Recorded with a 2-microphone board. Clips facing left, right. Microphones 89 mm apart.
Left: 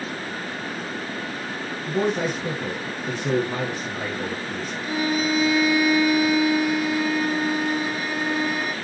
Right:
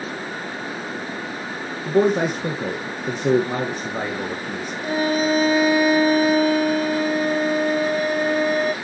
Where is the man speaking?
55° right (ahead or behind), 2.5 m.